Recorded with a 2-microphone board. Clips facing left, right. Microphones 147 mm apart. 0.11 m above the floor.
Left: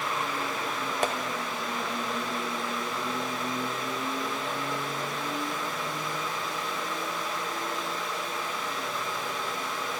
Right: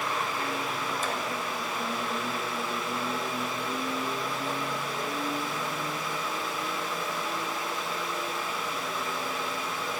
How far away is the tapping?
About 1.2 m.